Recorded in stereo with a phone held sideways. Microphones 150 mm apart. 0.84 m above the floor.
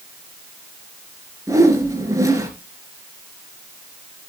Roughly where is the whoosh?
Right.